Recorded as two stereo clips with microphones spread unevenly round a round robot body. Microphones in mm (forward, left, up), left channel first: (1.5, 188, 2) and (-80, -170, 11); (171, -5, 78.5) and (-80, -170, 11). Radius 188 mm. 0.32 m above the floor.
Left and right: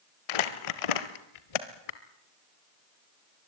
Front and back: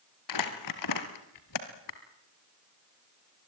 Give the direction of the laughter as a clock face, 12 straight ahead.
No laughter in this recording.